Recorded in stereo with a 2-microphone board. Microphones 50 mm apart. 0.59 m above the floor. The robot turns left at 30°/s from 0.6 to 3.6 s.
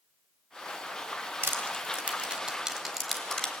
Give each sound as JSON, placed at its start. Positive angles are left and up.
{"t": 1.4, "sound": "crushing", "side_deg": -45, "distance_m": 3.5}